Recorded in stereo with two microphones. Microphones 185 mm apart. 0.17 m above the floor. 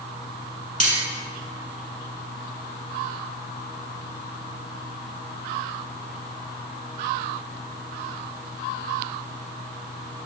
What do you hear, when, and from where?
0.8 s cutlery clinking: 40° right (ahead or behind), 1.0 m